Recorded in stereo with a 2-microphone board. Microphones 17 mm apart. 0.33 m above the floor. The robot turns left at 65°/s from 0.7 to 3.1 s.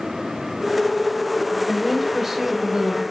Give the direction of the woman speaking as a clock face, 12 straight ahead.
11 o'clock.